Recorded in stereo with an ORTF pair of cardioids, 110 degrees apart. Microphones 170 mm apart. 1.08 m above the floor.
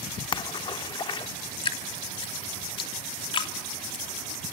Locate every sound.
0.3 s a splash: 30° left, 1.5 m
1.6 s dripping: 30° left, 2.5 m